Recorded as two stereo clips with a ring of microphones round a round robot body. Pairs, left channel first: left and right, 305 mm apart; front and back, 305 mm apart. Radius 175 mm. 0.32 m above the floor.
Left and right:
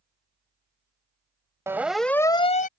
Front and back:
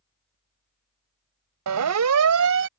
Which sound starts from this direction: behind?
A siren, at 1.7 s.